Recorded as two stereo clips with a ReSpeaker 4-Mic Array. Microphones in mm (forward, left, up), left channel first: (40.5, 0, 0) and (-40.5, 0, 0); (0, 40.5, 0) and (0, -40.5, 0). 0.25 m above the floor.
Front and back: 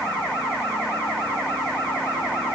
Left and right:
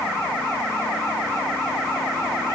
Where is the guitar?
No guitar in this recording.